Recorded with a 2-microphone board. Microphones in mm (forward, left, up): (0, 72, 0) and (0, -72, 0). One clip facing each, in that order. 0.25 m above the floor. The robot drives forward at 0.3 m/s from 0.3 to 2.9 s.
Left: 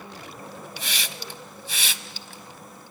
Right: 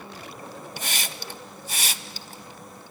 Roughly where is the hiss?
Right.